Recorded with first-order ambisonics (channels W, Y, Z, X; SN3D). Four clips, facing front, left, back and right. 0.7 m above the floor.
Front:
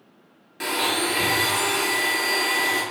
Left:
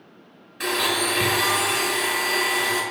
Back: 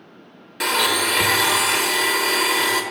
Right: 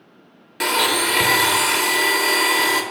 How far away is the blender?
About 1.0 m.